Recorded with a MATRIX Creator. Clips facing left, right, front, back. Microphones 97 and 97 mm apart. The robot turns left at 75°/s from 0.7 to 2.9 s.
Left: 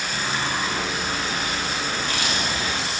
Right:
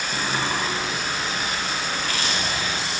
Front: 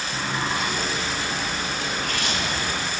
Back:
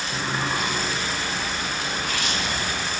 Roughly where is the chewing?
Ahead left.